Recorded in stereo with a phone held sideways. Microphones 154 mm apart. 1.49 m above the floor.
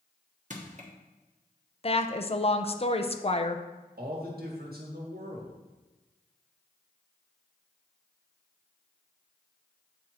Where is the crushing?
55° right (ahead or behind), 1.3 m.